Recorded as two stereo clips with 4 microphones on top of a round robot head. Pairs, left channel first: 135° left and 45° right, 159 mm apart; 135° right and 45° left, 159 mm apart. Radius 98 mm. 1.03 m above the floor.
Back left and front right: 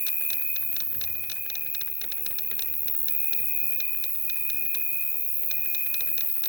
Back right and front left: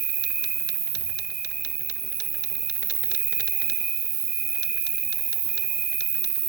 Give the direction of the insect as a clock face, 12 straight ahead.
11 o'clock.